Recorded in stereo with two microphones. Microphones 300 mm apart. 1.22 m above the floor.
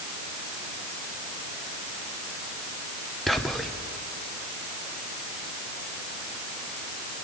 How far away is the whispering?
About 0.8 m.